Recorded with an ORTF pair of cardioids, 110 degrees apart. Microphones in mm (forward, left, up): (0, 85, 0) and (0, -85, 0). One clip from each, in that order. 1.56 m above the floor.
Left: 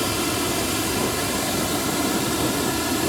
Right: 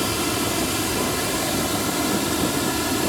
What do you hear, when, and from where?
0.0 s running water: straight ahead